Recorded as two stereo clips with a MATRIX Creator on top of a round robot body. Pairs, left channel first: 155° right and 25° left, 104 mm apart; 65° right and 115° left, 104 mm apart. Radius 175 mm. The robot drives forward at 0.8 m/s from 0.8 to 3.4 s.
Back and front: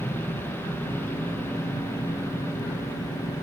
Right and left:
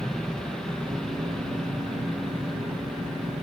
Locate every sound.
0.0 s an aircraft: 145° right; by 3.4 s 155° right